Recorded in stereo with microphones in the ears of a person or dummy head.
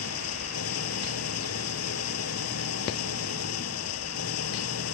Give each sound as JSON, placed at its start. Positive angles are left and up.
{"t": 0.0, "sound": "an engine running", "side_deg": 90}